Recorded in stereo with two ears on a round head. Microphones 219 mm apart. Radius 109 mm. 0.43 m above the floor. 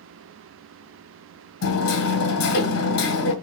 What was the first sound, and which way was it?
Hammering, 60° left (ahead or behind).